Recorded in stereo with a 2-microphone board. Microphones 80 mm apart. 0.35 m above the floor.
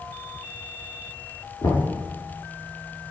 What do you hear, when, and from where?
1.6 s knocking: 55° left (ahead or behind), 3 m